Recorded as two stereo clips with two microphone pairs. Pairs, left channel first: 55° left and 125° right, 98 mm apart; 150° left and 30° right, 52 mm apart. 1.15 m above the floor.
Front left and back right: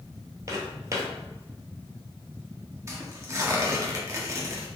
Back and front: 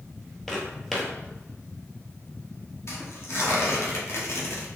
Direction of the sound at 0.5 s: 125° right.